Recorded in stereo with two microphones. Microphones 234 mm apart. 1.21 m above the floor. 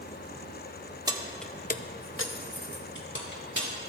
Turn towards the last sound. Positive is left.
turn(degrees=50)  # may be behind; listen again after turning